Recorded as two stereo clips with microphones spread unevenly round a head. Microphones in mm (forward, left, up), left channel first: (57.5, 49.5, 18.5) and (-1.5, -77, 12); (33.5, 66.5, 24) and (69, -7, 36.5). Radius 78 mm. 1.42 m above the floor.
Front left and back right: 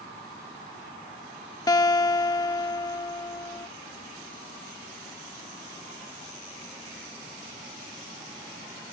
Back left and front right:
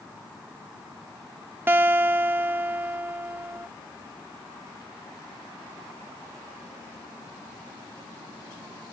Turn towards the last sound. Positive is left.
turn(degrees=0)